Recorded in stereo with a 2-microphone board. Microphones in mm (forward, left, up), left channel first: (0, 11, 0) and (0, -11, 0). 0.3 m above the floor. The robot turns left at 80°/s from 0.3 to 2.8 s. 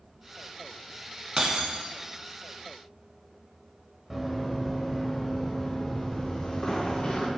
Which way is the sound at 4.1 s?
5° right (ahead or behind).